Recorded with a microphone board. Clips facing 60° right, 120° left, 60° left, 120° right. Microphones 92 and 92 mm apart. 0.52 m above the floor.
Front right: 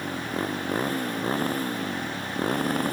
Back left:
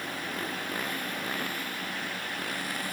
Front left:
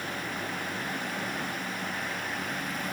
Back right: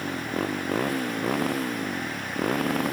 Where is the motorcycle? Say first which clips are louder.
Front right 6 dB, back right 6 dB; 120° right; by 2.9 s 105° right.